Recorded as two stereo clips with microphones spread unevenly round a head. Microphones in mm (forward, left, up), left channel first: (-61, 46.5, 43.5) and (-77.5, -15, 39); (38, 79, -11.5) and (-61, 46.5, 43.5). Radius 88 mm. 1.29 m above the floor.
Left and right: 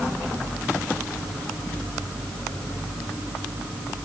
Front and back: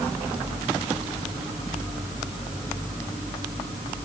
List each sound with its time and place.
Only background noise.